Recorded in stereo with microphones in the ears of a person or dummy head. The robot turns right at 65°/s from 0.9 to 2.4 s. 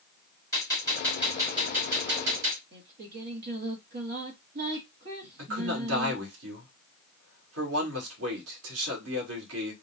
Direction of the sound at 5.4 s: 80° right.